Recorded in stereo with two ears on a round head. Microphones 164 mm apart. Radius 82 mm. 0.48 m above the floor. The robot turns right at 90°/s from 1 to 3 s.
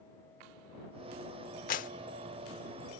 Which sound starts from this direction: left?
A clap, at 1.7 s.